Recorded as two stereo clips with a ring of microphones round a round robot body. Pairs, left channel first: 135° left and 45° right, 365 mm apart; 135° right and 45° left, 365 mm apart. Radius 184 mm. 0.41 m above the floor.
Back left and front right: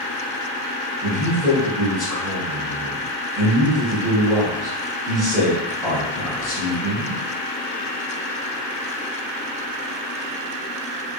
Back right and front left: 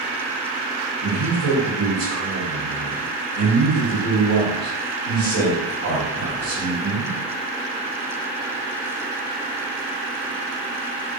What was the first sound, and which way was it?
A man speaking, 45° left.